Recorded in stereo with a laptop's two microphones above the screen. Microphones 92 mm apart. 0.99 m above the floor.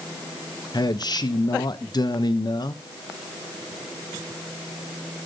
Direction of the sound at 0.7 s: 50° left (ahead or behind).